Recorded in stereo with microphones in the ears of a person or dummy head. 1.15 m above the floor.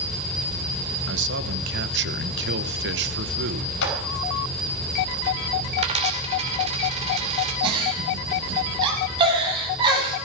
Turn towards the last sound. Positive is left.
turn(degrees=-25)  # may be behind; listen again after turning